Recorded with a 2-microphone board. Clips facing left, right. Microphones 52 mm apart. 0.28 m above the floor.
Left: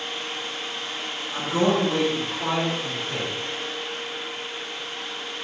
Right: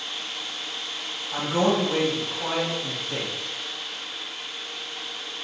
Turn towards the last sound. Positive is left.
turn(degrees=15)  # may be behind; listen again after turning